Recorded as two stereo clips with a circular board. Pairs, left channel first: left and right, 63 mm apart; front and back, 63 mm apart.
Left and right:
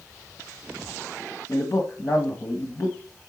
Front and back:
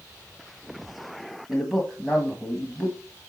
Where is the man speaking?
90° left, 1.6 m.